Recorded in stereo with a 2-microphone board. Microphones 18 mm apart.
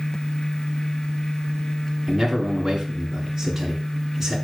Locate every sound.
2.1 s a man speaking: 10° right (ahead or behind), 2 m